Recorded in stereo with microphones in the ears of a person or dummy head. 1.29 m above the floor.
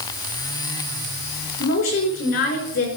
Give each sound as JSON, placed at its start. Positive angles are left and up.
{"t": 1.6, "sound": "a woman speaking", "side_deg": 70, "distance_m": 5.5}